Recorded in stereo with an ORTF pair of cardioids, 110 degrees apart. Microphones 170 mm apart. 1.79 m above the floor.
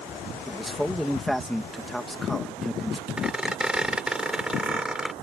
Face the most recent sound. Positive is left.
turn(degrees=-5)